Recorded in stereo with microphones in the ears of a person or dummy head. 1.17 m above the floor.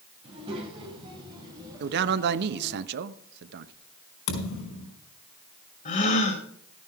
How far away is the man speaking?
About 0.8 m.